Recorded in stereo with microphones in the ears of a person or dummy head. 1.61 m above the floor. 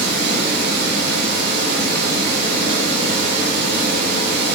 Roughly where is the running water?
Right.